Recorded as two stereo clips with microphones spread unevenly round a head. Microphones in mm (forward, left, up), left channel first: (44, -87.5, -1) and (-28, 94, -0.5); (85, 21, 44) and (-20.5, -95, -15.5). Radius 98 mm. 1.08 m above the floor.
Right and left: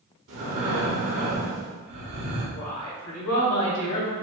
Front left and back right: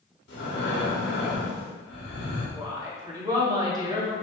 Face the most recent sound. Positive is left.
turn(degrees=-65)